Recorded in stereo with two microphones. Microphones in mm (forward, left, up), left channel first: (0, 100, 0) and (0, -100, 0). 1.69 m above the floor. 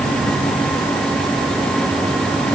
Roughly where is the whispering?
I don't hear whispering.